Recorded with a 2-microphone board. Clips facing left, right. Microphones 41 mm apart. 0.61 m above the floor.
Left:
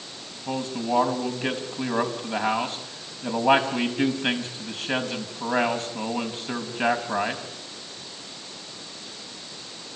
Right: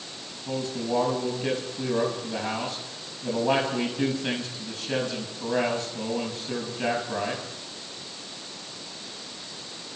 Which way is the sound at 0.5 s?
40° left (ahead or behind).